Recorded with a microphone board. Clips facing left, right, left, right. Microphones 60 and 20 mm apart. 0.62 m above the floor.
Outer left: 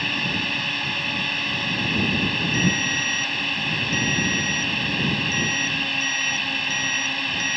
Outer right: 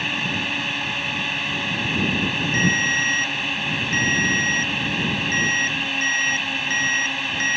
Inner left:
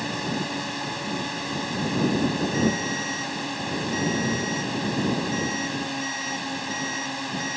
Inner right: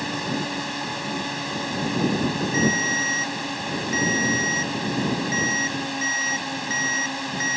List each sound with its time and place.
0.0 s a drone: 5° right (ahead or behind)
2.5 s a ringtone: 40° right (ahead or behind)